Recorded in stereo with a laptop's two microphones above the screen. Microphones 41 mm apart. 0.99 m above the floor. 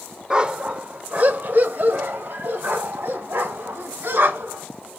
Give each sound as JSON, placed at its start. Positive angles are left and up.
{"t": 0.3, "sound": "a dog barking", "side_deg": -20, "distance_m": 0.8}